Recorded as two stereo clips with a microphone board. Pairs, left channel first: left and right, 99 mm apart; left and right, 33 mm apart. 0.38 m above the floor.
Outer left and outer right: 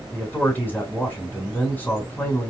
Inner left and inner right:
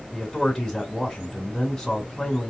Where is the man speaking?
15° left (ahead or behind), 1.7 m.